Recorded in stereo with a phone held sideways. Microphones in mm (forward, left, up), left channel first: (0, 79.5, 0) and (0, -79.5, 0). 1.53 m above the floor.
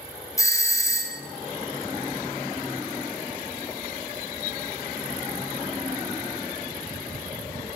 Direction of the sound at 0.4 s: 20° left (ahead or behind).